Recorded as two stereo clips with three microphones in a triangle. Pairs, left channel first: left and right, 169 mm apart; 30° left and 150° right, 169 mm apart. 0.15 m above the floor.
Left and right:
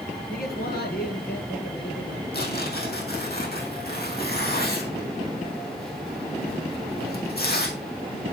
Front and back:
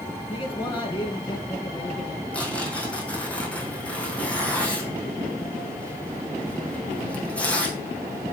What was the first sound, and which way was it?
A man speaking, 80° left.